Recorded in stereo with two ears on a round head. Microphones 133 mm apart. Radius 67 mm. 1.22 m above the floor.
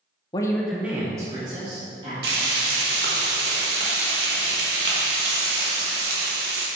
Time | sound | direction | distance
0.3 | a woman speaking | 30° left (ahead or behind) | 0.8 m
2.2 | frying | 75° right (ahead or behind) | 1.6 m